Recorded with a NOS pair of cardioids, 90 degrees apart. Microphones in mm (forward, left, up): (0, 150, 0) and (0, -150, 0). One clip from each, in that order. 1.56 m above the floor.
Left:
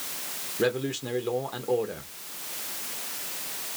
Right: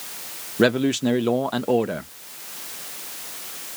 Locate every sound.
0.6 s a man speaking: 50° right, 0.8 m